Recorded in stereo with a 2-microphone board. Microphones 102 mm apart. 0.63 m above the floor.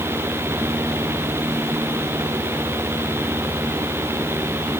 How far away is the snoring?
I don't hear snoring.